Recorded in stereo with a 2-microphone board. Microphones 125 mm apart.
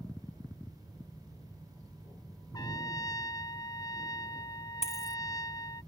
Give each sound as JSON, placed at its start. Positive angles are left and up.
{"t": 2.5, "sound": "a trumpet", "side_deg": 30}
{"t": 4.8, "sound": "a dropped coin", "side_deg": 55}